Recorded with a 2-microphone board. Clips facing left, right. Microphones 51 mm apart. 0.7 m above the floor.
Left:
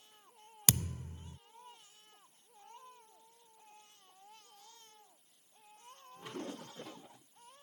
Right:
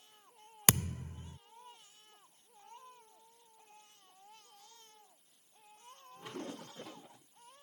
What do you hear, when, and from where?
0.7 s a thud: 35° right (ahead or behind)